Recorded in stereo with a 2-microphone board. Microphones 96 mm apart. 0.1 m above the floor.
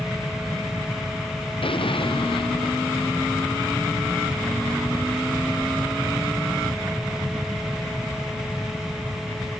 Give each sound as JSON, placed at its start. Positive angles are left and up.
{"t": 1.6, "sound": "an explosion", "side_deg": 70}